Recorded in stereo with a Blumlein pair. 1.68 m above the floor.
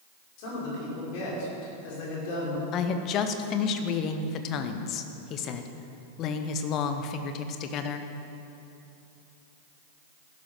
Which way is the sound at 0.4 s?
45° left.